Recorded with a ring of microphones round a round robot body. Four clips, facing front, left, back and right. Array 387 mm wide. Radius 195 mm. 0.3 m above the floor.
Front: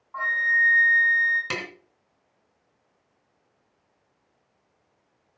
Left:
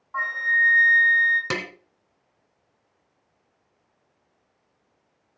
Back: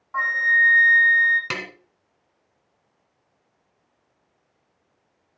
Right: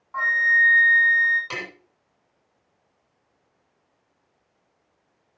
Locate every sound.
0.1 s a flute: 175° right, 6.5 m
1.5 s tapping: 100° left, 2.5 m